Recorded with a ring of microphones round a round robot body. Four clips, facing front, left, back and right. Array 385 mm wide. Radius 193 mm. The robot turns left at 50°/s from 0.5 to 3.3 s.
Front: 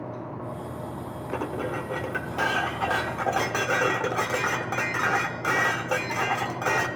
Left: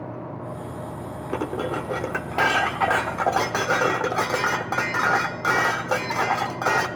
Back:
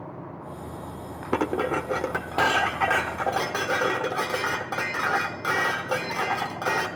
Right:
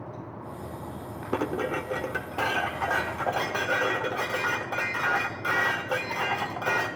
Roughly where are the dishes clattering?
Behind.